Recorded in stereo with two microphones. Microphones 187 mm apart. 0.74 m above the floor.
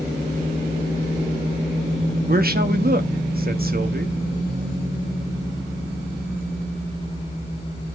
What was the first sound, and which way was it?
A man speaking, 50° right (ahead or behind).